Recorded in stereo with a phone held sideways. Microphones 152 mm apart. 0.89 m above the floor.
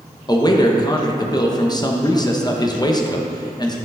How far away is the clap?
No clap in this recording.